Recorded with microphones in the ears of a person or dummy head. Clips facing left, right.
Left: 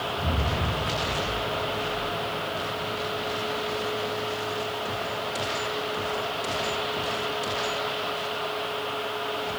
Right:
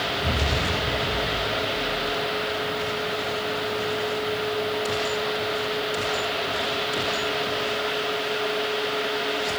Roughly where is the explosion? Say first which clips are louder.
Right 2 dB; centre.